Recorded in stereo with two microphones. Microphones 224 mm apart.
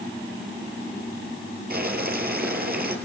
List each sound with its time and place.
1.7 s boiling: 45° right (ahead or behind), 4 m